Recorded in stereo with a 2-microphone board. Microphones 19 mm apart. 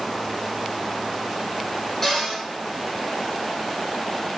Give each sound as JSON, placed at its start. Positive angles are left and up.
{"t": 2.0, "sound": "a cupboard door", "side_deg": 10, "distance_m": 1.6}